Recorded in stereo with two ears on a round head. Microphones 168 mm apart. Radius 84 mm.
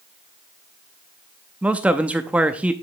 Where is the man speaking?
10° right (ahead or behind), 0.7 m.